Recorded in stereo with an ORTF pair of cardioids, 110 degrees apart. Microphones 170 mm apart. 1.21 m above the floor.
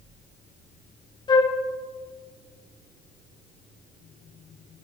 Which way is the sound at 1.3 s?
25° left.